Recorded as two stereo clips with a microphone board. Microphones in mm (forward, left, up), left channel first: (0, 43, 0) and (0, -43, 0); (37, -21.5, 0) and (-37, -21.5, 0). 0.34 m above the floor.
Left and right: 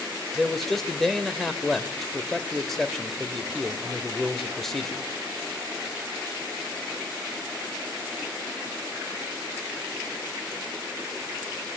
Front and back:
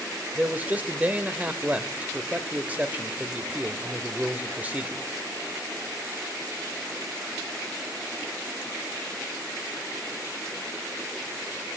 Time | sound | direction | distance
0.3 | a man speaking | 170° left | 1.3 m